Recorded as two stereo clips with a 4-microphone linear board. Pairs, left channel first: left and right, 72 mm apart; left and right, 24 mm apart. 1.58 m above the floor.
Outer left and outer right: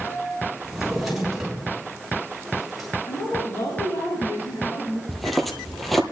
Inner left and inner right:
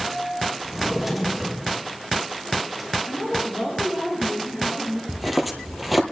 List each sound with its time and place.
0.6 s a drawer: 5° right (ahead or behind), 6.5 m
3.0 s a woman speaking: 55° left (ahead or behind), 8 m
5.1 s footsteps: centre (ahead or behind), 1.7 m